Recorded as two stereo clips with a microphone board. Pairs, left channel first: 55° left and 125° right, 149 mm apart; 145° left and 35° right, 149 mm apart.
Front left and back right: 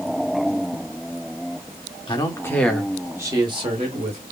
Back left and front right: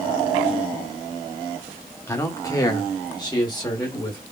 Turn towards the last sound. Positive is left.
turn(degrees=-150)